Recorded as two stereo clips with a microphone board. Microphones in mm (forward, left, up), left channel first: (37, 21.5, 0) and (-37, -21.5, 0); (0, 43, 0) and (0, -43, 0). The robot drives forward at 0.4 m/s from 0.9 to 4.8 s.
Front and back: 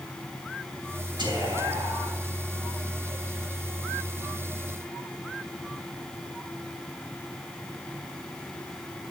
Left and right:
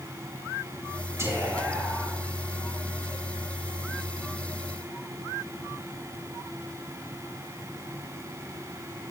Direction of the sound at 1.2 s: 140° right.